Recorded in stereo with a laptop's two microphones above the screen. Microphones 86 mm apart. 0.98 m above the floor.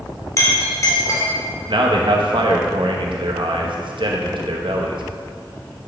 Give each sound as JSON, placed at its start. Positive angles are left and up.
{"t": 0.4, "sound": "a clink", "side_deg": 35, "distance_m": 1.5}
{"t": 1.7, "sound": "a man speaking", "side_deg": -65, "distance_m": 0.9}